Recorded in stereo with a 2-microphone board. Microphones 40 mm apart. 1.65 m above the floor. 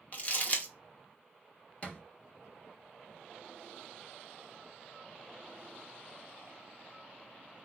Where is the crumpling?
35° left (ahead or behind), 0.7 m.